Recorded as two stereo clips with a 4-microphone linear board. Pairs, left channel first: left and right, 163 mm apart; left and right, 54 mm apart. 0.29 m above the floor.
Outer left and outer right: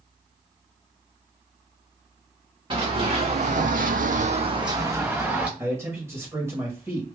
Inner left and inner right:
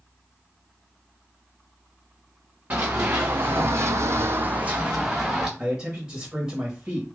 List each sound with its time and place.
2.7 s running footsteps: 30° right (ahead or behind), 1.2 m; by 5.5 s 10° right (ahead or behind), 1.2 m
5.6 s a man speaking: 15° right (ahead or behind), 1.1 m